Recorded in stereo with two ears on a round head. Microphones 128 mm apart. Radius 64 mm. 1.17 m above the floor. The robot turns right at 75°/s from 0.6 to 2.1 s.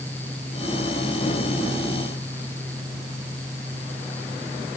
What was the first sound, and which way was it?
Only background noise.